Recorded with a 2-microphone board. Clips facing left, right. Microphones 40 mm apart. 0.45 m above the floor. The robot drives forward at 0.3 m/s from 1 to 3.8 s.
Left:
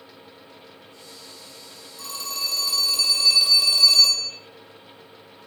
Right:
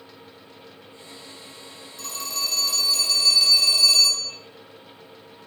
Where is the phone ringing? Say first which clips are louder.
Even; 10° left (ahead or behind), 2.5 m; by 4.3 s 5° left (ahead or behind), 3 m.